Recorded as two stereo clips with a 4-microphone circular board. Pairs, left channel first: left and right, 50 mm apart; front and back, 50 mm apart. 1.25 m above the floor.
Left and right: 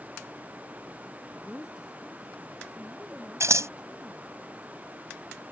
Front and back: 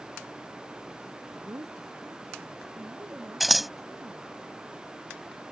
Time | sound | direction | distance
1.3 | a woman speaking | 175° right | ?
3.4 | scissors | 90° right | ?